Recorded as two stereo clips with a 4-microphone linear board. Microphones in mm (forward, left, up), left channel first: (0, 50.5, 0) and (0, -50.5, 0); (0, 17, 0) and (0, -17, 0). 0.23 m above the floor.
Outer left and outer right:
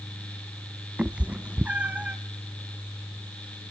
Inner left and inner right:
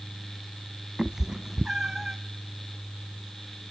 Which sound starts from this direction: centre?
A cat meowing, at 1.0 s.